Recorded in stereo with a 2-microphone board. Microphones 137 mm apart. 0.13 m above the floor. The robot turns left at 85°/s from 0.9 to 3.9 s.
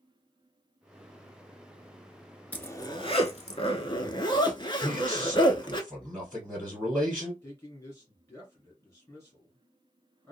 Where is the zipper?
165° left, 0.5 m; by 5.8 s 50° left, 0.5 m.